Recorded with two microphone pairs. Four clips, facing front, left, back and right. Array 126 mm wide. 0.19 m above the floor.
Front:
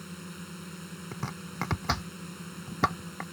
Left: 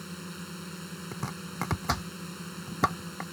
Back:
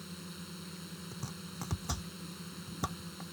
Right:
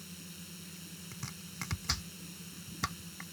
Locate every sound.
0.0 s a drone: 70° left
1.1 s chopping: 45° left